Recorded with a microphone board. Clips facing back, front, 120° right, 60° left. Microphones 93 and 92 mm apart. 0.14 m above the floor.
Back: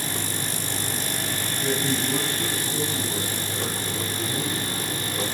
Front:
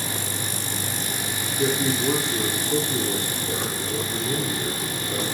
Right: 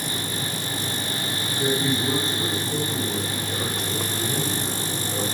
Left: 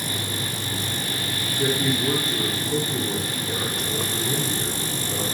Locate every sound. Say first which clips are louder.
1.6 s a man speaking: front 3 dB, even; 25° right, 7 m